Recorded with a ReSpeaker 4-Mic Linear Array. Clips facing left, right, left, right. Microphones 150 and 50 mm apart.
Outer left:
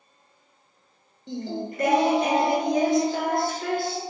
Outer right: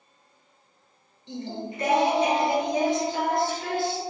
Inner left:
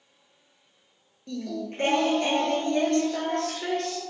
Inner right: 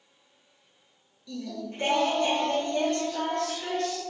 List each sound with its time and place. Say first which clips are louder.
1.3 s singing: outer left 3 dB, inner left 3 dB; 50° left (ahead or behind), 0.5 m